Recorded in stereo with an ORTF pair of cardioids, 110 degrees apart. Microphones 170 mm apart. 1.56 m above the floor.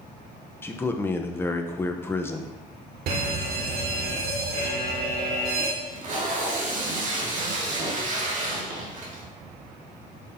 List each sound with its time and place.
0.6 s a man speaking: 15° left, 1.0 m
3.1 s a fire alarm: 65° right, 2.5 m
5.8 s tape being pulled: 50° right, 2.5 m